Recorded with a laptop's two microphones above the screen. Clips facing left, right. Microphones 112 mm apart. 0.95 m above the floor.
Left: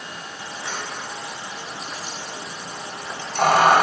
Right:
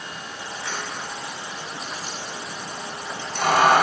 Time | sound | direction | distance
0.6 | keys jangling | 25° left (ahead or behind) | 4 m